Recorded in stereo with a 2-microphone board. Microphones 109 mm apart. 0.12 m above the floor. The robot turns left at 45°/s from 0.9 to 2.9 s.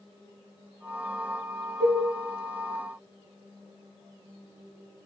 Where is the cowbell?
25° right (ahead or behind), 3.5 m; by 2.0 s 40° right (ahead or behind), 3.5 m.